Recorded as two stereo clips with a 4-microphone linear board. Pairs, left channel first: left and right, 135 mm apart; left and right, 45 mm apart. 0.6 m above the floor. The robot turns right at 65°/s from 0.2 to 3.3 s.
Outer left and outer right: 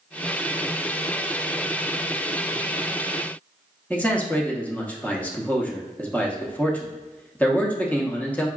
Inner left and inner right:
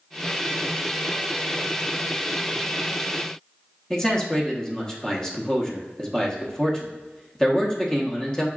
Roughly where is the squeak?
No squeak in this recording.